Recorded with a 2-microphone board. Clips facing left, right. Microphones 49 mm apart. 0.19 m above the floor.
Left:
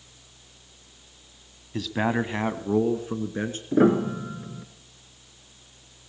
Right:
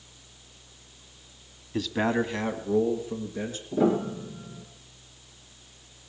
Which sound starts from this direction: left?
A piano, at 3.7 s.